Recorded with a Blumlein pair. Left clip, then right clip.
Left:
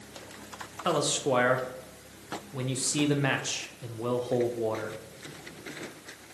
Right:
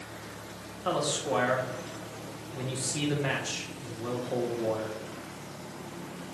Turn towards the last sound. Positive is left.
turn(degrees=20)